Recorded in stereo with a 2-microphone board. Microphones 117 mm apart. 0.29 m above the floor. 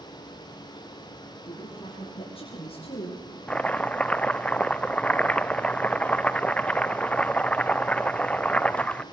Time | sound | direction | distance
1.4 | a woman speaking | 40° left (ahead or behind) | 6.5 m
3.5 | chopping | 10° left (ahead or behind) | 0.6 m